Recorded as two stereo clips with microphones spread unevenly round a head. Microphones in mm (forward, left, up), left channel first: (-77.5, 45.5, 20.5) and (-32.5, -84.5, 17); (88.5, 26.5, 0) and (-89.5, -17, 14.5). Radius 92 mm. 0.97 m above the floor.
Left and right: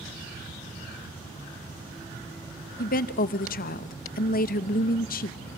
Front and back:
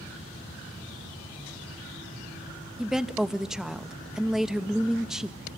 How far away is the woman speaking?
About 0.8 m.